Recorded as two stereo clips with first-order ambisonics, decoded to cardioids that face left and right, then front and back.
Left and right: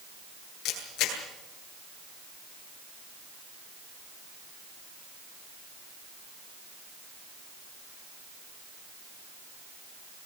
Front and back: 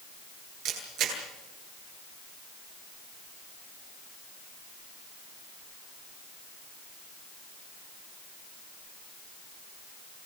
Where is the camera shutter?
135° left, 9.5 m.